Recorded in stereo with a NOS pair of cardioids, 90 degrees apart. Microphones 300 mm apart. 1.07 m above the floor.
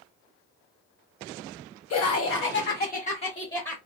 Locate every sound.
1.9 s laughter: 55° left, 1.4 m; by 3.8 s 5° left, 1.5 m